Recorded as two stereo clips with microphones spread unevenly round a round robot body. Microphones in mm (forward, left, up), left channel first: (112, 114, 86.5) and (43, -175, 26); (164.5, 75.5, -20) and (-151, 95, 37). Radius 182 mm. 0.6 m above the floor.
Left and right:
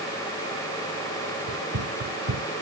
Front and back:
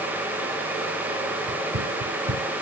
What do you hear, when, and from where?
1.5 s running footsteps: 140° right